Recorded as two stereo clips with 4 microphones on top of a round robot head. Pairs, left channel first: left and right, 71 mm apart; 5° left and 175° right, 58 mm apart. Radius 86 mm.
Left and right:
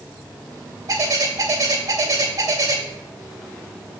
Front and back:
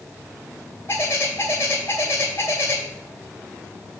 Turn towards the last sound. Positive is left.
turn(degrees=-60)